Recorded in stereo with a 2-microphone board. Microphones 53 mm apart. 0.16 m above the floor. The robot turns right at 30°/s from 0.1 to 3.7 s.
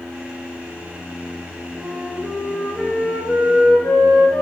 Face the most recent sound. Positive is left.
turn(degrees=20)